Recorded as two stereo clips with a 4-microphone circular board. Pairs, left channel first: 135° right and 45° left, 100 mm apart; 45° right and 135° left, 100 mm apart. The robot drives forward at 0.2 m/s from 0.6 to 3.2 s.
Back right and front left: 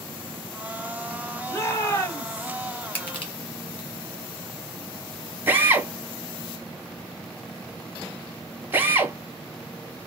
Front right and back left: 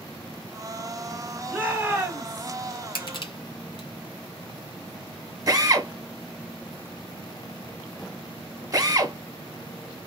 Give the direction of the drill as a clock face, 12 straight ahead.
9 o'clock.